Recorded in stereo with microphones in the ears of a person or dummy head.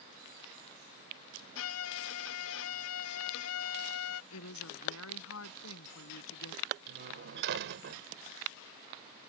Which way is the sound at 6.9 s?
65° right (ahead or behind).